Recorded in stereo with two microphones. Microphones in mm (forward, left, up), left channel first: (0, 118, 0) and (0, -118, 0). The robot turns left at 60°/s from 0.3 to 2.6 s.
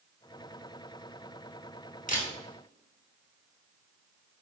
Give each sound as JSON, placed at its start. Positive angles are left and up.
{"t": 2.1, "sound": "a camera shutter", "side_deg": 35, "distance_m": 1.0}